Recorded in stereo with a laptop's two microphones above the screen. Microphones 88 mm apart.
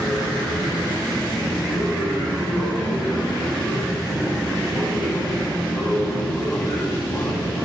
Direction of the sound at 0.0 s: 10° left (ahead or behind).